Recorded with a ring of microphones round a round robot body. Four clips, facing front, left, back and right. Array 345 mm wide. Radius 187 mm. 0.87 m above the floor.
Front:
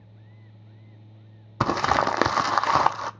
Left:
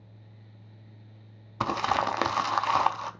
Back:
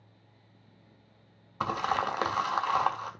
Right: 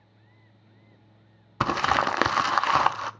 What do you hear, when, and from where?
1.6 s crumpling: 15° right, 0.5 m